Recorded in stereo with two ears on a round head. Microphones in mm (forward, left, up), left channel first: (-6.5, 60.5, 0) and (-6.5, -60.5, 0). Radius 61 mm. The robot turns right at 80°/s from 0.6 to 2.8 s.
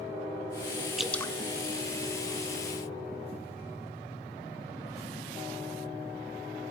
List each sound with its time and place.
1.0 s dripping: 5° right (ahead or behind), 1.1 m; by 1.3 s 25° left (ahead or behind), 1.1 m